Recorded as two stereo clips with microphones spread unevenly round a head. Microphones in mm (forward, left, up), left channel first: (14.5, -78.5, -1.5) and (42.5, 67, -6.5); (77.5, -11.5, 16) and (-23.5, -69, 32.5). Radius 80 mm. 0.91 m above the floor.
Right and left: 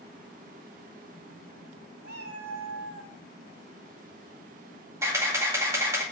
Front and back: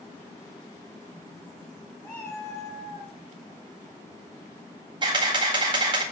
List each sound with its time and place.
2.0 s a cat meowing: 110° left, 3 m
5.0 s a camera shutter: 150° left, 1.9 m